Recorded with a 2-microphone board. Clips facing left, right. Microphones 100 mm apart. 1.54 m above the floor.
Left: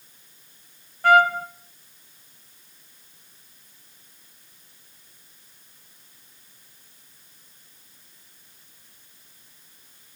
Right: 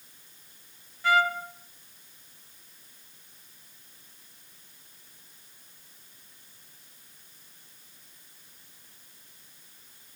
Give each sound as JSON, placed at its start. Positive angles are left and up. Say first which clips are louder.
{"t": 1.0, "sound": "a trumpet", "louder": "left 8 dB", "side_deg": 55, "distance_m": 0.7}